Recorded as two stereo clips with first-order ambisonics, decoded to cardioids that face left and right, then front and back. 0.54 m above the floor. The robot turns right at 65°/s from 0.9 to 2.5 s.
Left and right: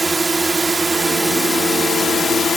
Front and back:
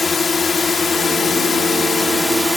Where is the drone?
25° right; by 2.6 s 80° left.